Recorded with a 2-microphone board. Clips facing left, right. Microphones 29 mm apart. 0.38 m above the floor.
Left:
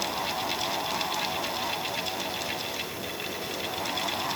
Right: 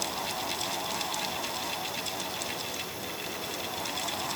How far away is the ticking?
I don't hear ticking.